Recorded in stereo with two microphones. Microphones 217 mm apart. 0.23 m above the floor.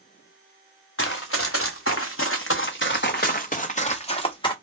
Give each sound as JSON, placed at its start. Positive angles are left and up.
{"t": 1.0, "sound": "running footsteps", "side_deg": 70, "distance_m": 1.2}